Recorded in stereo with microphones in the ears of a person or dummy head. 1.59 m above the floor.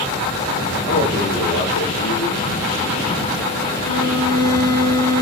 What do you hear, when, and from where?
0.9 s a man speaking: 65° left (ahead or behind), 3 m
3.8 s a violin: 70° left (ahead or behind), 4 m